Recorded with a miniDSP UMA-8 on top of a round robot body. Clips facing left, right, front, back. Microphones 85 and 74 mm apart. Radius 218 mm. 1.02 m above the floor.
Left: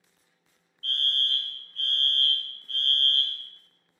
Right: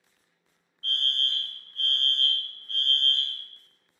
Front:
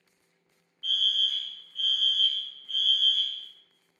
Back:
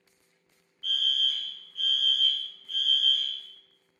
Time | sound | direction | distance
0.8 | a fire alarm | 110° right | 1.5 m